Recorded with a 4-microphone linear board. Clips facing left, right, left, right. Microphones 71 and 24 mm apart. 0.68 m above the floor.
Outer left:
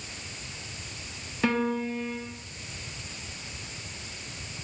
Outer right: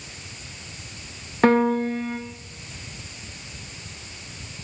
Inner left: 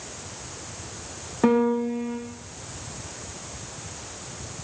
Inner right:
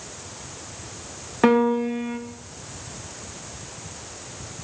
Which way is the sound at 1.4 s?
45° right (ahead or behind).